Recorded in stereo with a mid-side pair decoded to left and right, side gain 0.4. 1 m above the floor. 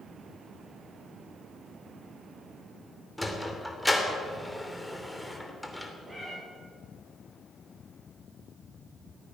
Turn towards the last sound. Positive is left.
turn(degrees=-25)